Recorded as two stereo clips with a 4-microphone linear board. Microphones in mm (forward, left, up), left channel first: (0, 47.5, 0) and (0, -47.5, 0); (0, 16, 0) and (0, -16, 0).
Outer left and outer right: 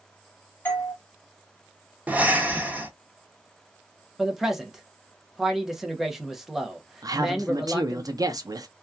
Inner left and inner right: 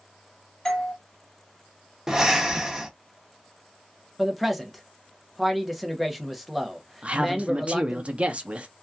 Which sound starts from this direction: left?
A doorbell, at 0.7 s.